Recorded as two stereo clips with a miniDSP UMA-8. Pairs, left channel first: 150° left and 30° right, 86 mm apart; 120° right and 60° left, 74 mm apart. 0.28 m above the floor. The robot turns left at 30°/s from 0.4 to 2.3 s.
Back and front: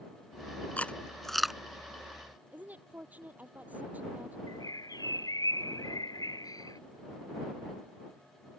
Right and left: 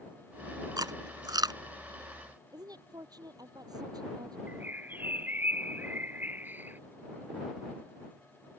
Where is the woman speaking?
40° left.